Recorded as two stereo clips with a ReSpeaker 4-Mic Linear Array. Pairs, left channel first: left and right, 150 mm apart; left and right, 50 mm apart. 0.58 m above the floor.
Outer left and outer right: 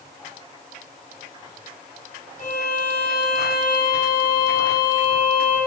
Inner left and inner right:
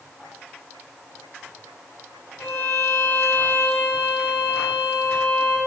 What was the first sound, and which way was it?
A violin, 60° left (ahead or behind).